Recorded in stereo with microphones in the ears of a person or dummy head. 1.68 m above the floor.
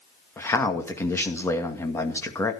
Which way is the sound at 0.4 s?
15° left (ahead or behind).